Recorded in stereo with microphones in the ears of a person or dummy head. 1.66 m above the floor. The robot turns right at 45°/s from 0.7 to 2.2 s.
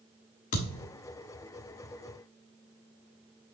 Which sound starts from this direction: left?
A thud, at 0.5 s.